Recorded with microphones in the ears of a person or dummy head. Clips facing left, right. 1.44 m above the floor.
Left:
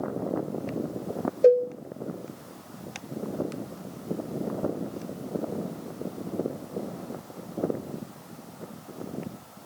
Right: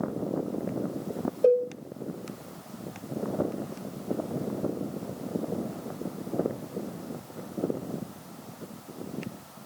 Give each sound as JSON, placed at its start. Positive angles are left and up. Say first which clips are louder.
{"t": 1.4, "sound": "a cowbell", "louder": "left 3 dB", "side_deg": 25, "distance_m": 1.5}